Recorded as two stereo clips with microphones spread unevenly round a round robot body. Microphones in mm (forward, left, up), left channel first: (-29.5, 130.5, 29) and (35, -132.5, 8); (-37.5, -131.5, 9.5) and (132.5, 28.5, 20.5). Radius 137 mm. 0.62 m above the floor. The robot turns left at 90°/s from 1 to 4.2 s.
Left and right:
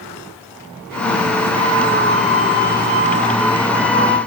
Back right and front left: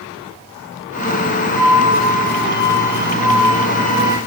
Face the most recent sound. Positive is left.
turn(degrees=115)